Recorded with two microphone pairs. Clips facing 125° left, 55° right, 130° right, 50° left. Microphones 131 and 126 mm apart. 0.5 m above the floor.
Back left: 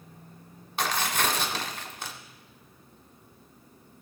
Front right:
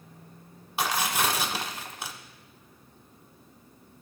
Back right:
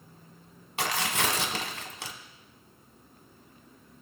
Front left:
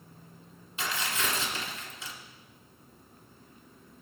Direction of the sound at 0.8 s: 135° right.